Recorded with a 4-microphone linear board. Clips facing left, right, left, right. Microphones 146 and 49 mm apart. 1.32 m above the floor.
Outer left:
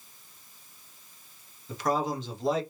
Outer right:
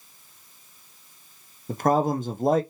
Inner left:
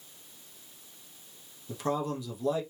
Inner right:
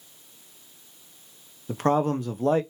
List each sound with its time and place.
1.7 s a man speaking: 50° right (ahead or behind), 0.6 m